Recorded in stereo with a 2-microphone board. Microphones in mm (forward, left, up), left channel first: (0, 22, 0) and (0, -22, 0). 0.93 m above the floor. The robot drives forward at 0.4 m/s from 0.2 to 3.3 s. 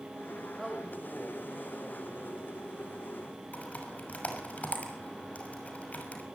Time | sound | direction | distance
0.6 | a man speaking | 5° left (ahead or behind) | 4 m
3.5 | typing on a keyboard | 35° left (ahead or behind) | 6 m